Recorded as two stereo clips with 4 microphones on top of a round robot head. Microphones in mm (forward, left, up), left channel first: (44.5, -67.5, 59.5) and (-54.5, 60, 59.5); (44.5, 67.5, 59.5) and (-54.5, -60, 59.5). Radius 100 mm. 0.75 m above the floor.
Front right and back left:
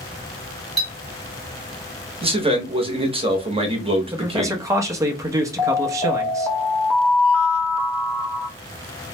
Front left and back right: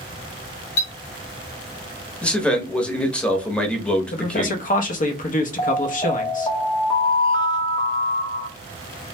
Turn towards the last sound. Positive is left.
turn(degrees=20)